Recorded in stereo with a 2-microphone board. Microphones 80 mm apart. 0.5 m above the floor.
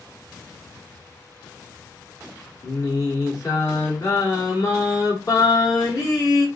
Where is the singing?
50° left (ahead or behind), 1.7 m.